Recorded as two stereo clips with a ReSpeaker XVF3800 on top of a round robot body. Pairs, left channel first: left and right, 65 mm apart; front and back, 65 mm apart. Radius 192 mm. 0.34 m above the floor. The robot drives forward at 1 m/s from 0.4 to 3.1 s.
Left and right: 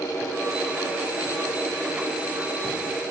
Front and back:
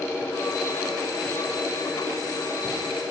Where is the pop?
I don't hear a pop.